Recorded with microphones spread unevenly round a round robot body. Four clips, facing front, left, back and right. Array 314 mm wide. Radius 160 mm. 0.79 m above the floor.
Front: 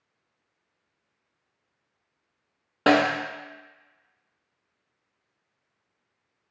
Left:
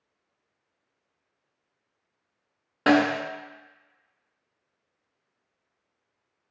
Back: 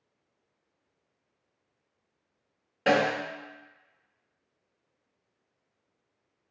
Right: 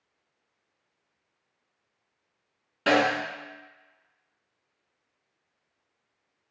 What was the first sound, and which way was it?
A snare drum, 15° left.